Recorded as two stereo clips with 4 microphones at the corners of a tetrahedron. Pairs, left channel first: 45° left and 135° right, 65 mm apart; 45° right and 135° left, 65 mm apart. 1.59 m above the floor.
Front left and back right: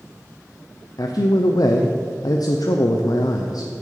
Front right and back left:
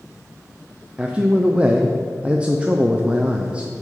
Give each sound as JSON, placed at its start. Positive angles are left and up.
{"t": 1.0, "sound": "a man speaking", "azimuth_deg": 60, "distance_m": 0.5}